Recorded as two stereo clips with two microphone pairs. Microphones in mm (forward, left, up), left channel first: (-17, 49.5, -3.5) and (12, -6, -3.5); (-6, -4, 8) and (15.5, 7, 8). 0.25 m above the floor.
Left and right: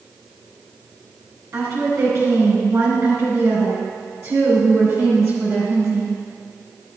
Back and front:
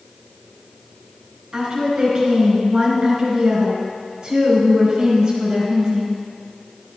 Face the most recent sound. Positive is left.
turn(degrees=-35)